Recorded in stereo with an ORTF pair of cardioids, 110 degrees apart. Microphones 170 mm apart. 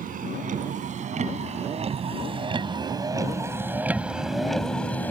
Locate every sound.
0.0 s a vehicle: 55° right; by 5.1 s 10° left